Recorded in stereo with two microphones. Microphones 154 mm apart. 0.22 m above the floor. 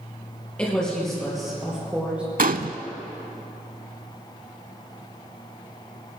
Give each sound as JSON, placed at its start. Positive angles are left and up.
{"t": 0.6, "sound": "a woman speaking", "side_deg": 5, "distance_m": 4.5}
{"t": 2.4, "sound": "a gunshot", "side_deg": -65, "distance_m": 0.5}